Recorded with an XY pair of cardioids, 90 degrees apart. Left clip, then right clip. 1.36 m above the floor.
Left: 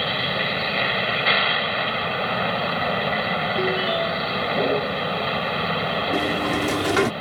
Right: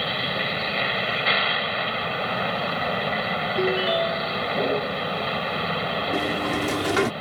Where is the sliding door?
10° left.